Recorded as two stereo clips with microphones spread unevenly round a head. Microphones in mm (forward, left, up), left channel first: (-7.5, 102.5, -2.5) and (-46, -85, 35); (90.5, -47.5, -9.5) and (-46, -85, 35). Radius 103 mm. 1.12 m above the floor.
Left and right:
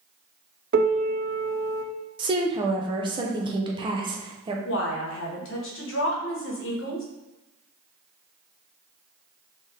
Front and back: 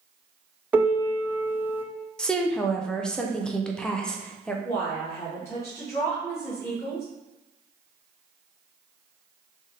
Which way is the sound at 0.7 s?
100° right.